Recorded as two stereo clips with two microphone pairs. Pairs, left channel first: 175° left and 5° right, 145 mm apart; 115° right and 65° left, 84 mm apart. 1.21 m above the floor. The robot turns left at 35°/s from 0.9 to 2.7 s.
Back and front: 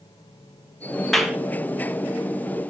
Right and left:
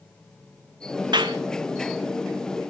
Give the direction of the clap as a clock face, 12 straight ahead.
9 o'clock.